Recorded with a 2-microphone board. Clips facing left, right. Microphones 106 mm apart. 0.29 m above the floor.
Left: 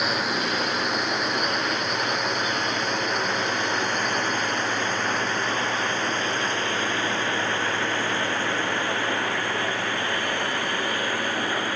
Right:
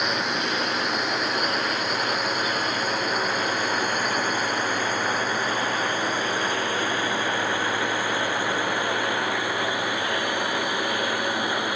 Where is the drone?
Centre (ahead or behind); by 11.8 s 10° right (ahead or behind).